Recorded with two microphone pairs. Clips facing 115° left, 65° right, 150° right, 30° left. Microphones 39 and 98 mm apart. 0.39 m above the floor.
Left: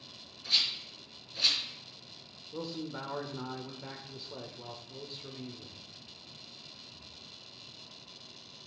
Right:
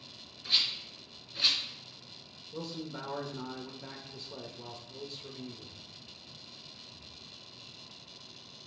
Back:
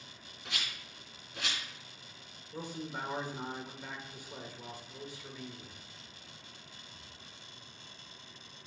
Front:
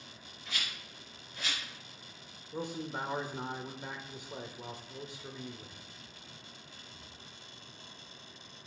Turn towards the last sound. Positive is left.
turn(degrees=55)